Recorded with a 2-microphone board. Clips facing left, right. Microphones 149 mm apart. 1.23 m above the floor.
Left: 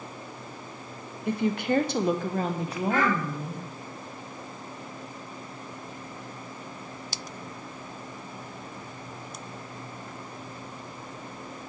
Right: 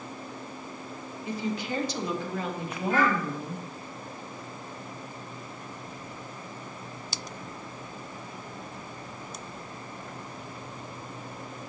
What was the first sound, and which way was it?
A woman speaking, 60° left (ahead or behind).